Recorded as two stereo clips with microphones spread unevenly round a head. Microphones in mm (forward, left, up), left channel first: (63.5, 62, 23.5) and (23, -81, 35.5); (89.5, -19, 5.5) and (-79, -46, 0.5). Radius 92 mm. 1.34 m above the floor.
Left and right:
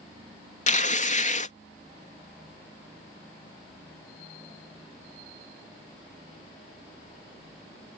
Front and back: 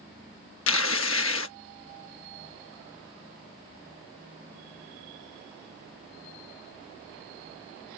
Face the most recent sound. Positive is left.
turn(degrees=35)